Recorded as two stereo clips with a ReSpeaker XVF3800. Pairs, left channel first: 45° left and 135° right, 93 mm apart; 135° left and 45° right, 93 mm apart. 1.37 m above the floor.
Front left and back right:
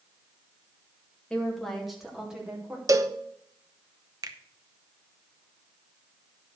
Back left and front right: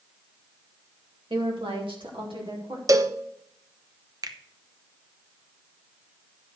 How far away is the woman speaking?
About 2.5 m.